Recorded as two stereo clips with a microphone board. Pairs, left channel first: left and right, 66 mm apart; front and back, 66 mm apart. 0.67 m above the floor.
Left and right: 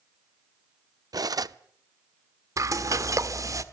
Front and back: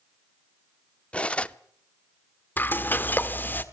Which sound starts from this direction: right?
Cutlery clinking, at 1.1 s.